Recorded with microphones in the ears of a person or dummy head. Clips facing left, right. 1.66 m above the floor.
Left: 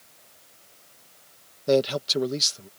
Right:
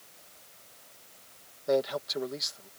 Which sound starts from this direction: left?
A man speaking, at 1.7 s.